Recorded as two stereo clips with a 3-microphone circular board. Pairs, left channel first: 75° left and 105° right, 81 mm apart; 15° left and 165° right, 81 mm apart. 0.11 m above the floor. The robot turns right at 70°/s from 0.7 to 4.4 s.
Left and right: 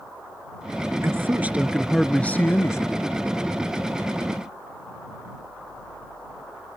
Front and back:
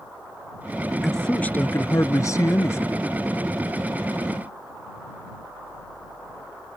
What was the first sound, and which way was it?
A man speaking, 75° right.